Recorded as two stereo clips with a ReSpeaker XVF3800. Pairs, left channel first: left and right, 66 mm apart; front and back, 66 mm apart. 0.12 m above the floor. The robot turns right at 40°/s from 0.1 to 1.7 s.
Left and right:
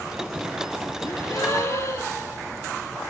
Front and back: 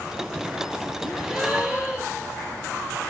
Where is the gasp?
90° left, 3 m; by 2.3 s 120° left, 3 m.